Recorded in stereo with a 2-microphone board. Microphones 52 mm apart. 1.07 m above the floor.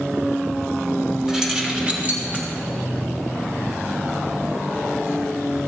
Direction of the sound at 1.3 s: 10° right (ahead or behind).